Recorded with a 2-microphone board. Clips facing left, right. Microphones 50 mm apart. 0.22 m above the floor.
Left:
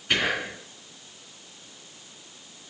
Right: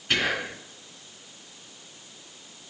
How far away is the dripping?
No dripping in this recording.